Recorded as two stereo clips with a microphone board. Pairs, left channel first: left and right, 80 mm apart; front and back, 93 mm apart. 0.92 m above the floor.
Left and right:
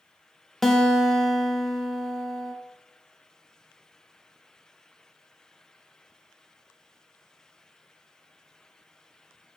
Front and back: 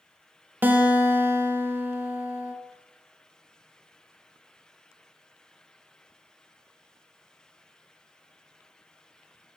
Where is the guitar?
165° left, 0.7 m.